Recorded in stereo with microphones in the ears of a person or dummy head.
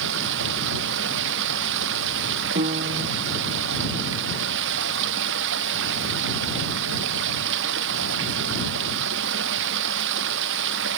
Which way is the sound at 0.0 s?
70° right (ahead or behind).